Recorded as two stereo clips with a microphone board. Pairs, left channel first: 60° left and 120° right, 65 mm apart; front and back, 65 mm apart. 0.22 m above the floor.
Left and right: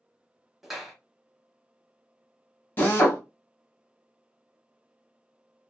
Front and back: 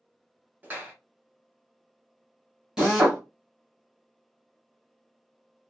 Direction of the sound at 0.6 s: 155° left.